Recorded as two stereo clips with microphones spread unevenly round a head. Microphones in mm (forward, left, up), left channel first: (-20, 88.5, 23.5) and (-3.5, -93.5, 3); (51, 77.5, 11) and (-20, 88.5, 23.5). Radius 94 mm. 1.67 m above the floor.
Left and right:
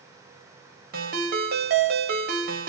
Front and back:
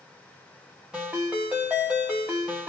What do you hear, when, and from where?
0.9 s a ringtone: 115° right, 1.0 m